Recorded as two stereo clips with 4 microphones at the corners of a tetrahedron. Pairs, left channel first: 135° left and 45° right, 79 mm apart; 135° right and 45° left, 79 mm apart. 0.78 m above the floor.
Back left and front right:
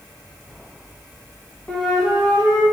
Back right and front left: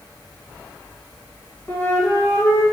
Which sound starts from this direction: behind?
A flute, at 1.7 s.